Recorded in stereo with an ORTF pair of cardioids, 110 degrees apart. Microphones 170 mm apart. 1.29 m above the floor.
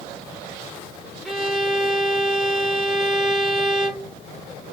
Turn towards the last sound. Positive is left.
turn(degrees=0)